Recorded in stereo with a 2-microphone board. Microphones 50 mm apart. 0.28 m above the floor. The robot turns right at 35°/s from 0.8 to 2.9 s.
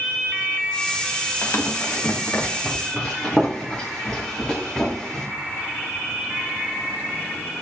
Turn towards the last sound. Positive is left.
turn(degrees=15)  # may be behind; listen again after turning